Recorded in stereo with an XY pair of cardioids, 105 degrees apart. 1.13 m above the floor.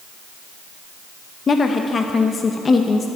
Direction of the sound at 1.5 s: 40° left.